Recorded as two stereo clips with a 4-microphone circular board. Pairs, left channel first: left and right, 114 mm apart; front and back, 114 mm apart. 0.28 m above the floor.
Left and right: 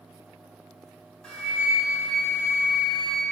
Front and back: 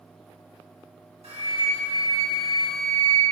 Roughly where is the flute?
Behind.